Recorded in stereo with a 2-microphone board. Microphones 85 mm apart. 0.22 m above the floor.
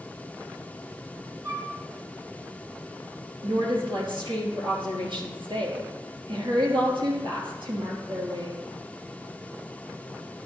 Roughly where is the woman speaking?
Right.